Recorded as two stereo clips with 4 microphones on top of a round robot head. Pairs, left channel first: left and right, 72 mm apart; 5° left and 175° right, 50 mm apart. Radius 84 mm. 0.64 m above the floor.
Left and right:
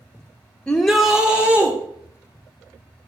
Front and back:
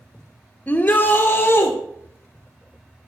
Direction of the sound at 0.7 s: 20° left.